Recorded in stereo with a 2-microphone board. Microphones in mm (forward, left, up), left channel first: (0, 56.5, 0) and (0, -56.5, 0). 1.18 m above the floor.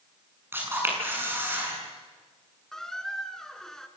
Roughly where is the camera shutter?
Centre.